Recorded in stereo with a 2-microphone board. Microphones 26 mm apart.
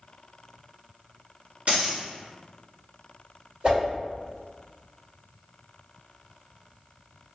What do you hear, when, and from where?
1.7 s a dropped coin: 55° right (ahead or behind), 1.9 m
3.6 s a whoosh: 45° right (ahead or behind), 1.9 m